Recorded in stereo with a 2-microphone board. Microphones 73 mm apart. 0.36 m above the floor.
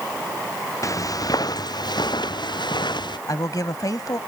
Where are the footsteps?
50° left (ahead or behind); by 3.2 s 80° left.